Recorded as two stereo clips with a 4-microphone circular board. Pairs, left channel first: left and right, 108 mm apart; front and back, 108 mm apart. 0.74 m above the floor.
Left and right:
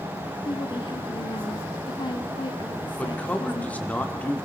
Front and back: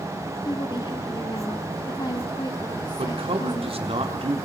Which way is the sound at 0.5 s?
50° left.